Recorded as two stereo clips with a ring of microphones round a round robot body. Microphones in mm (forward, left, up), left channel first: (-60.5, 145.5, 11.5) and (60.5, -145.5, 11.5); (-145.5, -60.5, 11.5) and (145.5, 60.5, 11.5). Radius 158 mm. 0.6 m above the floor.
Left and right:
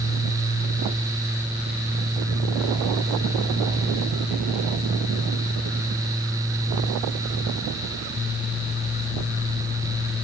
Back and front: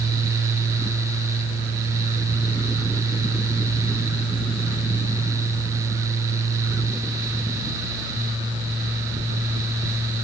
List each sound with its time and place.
Only background noise.